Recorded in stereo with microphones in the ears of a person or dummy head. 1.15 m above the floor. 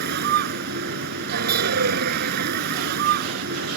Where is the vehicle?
55° right (ahead or behind).